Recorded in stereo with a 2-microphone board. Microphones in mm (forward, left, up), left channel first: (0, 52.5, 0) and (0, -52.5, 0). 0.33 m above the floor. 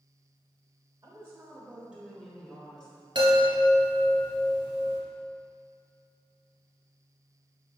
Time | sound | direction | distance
1.0 | a woman speaking | 30° right (ahead or behind) | 1.2 m
3.1 | a chime | 50° right (ahead or behind) | 2 m